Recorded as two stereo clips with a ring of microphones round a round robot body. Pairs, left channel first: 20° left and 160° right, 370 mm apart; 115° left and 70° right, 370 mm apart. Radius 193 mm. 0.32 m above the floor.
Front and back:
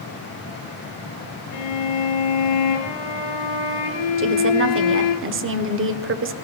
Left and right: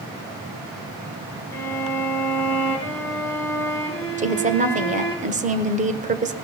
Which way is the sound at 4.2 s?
125° right.